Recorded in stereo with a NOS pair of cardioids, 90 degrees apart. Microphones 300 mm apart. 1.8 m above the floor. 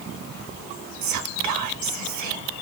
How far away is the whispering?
About 0.9 m.